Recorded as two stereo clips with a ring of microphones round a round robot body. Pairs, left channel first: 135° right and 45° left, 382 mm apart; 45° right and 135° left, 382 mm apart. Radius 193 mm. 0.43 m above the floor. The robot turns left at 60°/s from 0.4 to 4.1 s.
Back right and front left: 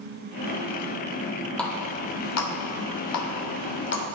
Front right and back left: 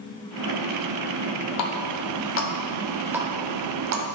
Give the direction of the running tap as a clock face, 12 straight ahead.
2 o'clock.